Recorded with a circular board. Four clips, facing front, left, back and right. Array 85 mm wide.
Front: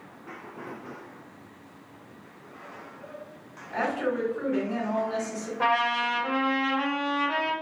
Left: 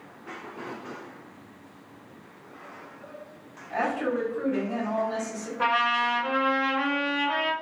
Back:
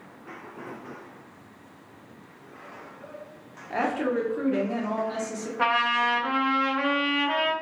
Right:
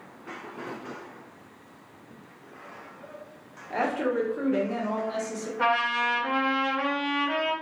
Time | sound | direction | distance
3.7 | a woman speaking | 160° right | 1.1 m
5.6 | a trumpet | 175° right | 1.8 m